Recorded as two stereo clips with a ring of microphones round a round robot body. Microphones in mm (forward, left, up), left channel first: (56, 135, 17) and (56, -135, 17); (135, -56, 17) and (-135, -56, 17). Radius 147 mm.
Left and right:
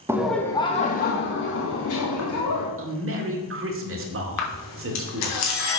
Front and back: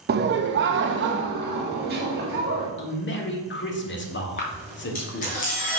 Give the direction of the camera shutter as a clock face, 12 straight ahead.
10 o'clock.